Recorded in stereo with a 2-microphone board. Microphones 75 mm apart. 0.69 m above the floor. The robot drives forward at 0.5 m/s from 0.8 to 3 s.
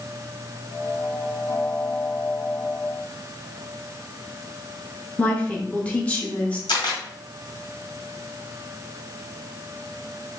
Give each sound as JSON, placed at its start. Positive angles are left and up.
{"t": 5.2, "sound": "a woman speaking", "side_deg": 15, "distance_m": 0.8}
{"t": 6.7, "sound": "a camera shutter", "side_deg": 85, "distance_m": 1.7}